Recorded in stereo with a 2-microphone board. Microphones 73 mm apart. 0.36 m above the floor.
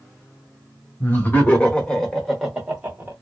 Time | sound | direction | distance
1.0 | laughter | 30° left (ahead or behind) | 1.3 m